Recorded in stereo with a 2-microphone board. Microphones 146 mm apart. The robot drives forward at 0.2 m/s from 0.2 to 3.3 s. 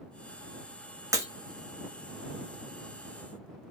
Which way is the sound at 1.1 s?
20° right (ahead or behind).